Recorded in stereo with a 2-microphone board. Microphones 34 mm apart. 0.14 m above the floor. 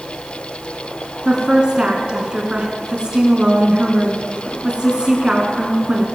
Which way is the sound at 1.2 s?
30° right (ahead or behind).